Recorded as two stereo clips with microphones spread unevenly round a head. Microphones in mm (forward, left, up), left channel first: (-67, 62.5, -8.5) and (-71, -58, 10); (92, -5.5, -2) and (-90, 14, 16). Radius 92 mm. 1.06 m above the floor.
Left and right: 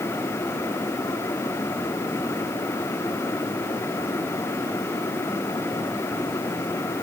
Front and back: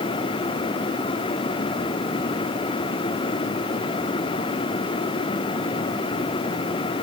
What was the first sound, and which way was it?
Only background noise.